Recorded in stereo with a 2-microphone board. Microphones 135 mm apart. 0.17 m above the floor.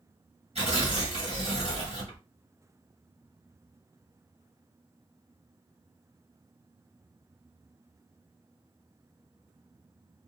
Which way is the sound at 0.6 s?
50° right (ahead or behind).